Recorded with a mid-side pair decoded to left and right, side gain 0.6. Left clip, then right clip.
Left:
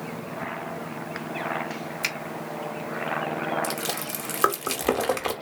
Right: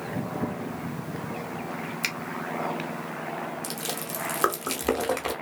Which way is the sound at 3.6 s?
10° left.